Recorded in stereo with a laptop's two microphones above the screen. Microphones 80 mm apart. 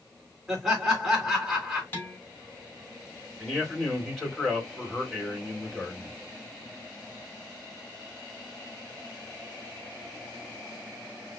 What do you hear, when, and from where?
0.5 s laughter: 5° right (ahead or behind), 3.5 m
1.9 s dishes clattering: 25° left (ahead or behind), 2.5 m
3.4 s a man speaking: 5° left (ahead or behind), 3.5 m